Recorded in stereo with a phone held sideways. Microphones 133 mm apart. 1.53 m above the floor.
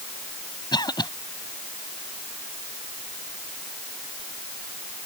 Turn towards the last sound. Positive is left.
turn(degrees=30)  # may be behind; listen again after turning